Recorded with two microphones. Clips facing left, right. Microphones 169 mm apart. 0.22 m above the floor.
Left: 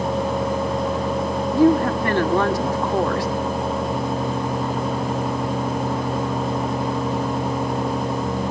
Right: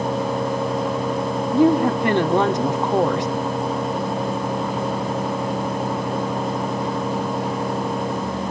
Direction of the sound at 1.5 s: 20° right (ahead or behind).